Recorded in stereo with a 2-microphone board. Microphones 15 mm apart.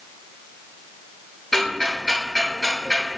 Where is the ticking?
5° left (ahead or behind), 1.3 m.